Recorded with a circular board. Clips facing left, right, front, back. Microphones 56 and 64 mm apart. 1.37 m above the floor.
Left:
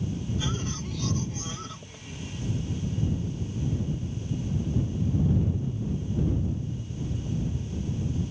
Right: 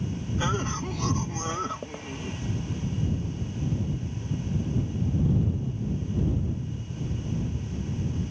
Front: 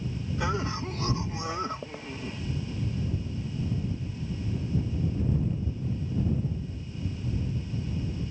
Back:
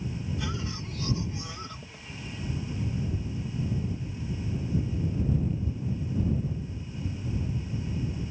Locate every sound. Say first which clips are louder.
0.4 s a cough: right 4 dB, front 5 dB; 45° right